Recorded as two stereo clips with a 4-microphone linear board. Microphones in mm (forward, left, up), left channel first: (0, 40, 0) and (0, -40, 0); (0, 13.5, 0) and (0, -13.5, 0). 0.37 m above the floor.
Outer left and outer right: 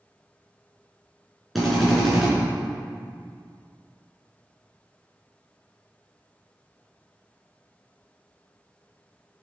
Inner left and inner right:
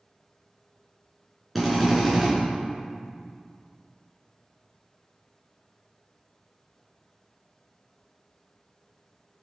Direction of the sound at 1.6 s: Centre (ahead or behind).